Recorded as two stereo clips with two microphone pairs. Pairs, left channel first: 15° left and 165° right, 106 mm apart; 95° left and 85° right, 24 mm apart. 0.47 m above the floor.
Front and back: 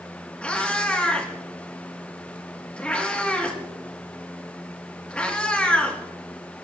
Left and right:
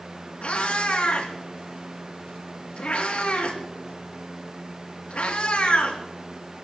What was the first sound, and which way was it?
A cat meowing, 95° left.